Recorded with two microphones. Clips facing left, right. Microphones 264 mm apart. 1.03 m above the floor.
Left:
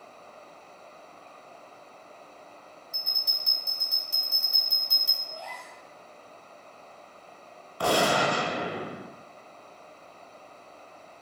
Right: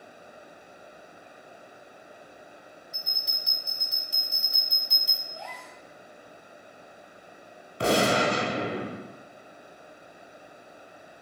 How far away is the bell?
About 1.8 m.